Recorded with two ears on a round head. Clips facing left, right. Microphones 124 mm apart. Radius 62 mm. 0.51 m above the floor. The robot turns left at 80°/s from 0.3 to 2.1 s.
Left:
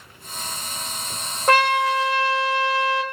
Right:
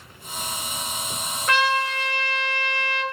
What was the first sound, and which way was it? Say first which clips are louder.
A trumpet: left 5 dB; 145° left.